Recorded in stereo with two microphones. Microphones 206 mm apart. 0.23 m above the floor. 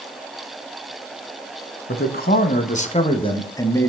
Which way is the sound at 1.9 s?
55° left (ahead or behind).